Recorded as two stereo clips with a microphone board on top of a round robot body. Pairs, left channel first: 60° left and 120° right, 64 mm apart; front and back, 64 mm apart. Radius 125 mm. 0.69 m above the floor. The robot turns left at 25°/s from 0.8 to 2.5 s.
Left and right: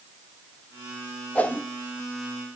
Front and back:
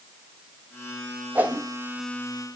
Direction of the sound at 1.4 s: 125° left.